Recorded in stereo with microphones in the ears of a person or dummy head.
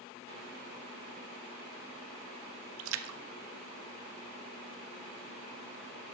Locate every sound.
2.8 s a splash: 75° right (ahead or behind), 0.8 m